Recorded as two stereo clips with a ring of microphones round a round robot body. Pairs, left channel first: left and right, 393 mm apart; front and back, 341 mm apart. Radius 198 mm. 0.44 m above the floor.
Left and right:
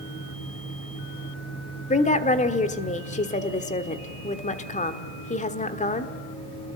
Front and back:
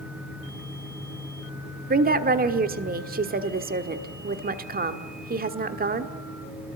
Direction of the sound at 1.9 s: 145° left.